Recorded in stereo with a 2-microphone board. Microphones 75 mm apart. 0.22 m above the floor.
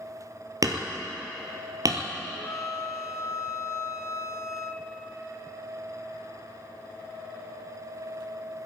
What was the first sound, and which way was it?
Hammering, 55° right (ahead or behind).